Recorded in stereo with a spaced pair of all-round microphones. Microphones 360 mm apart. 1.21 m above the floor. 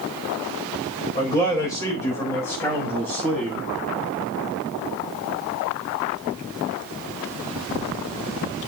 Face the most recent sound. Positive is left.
turn(degrees=5)  # may be behind; listen again after turning